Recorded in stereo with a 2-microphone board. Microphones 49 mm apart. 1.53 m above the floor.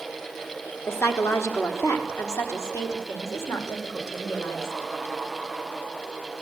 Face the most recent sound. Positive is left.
turn(degrees=80)